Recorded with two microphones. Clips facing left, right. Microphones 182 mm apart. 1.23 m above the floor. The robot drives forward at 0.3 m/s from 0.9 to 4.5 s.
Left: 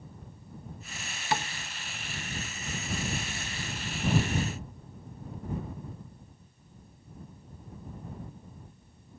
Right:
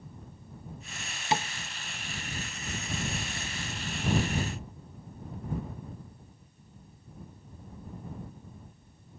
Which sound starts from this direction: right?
Tapping, at 1.3 s.